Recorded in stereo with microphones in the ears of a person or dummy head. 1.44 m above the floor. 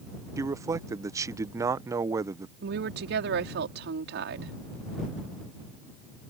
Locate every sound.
0.4 s a man speaking: 15° right (ahead or behind)
2.6 s a woman speaking: 60° right (ahead or behind)